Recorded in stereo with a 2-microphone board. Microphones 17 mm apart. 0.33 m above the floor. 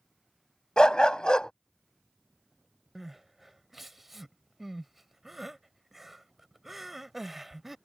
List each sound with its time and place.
0.8 s a dog barking: 60° left (ahead or behind)
3.0 s crying: 15° right (ahead or behind)